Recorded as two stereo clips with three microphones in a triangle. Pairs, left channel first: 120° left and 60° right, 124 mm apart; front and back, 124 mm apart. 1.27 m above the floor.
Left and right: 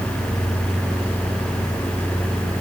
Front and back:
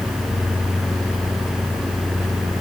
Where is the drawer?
No drawer in this recording.